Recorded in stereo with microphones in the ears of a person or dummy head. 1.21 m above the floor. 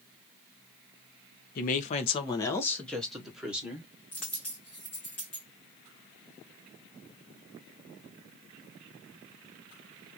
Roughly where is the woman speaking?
Left.